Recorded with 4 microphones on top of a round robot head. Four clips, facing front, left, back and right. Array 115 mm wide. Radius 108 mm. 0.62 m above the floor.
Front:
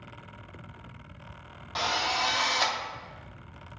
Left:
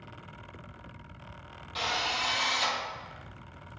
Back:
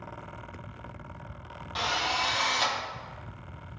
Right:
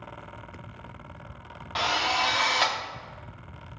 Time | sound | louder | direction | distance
1.8 | a drill | right 6 dB, front 1 dB | 70° right | 1.7 m